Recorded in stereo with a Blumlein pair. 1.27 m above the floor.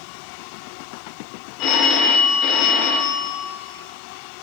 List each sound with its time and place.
1.6 s a phone ringing: 40° left, 2.5 m